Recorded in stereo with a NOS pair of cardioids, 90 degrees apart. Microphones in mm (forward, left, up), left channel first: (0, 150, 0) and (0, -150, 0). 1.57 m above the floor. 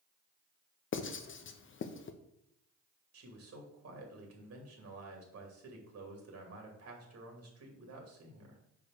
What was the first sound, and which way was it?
Writing, 40° left.